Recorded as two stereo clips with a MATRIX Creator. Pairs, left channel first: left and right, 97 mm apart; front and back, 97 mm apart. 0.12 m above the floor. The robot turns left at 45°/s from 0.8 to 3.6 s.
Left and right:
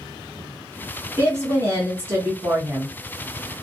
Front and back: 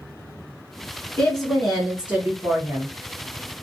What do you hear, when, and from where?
1.2 s a woman speaking: 70° right, 1.2 m; by 2.9 s 150° right, 1.2 m